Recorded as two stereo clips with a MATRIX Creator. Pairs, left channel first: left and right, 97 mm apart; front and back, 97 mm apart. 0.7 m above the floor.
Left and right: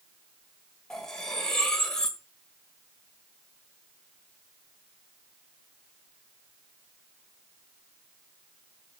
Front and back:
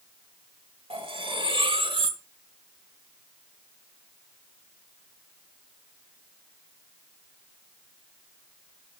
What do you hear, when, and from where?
0.9 s cutlery clinking: 175° left, 1.9 m